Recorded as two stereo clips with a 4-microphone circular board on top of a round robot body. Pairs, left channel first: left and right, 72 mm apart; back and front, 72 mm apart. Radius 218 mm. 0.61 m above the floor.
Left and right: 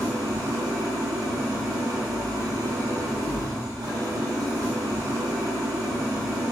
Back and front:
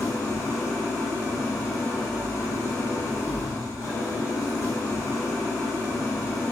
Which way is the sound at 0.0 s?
130° right.